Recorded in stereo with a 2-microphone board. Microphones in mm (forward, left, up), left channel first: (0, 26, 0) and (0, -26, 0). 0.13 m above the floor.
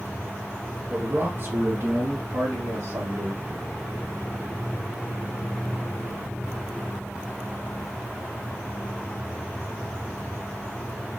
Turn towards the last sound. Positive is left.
turn(degrees=-75)  # may be behind; listen again after turning